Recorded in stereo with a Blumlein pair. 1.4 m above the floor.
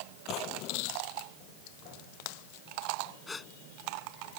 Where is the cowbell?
No cowbell in this recording.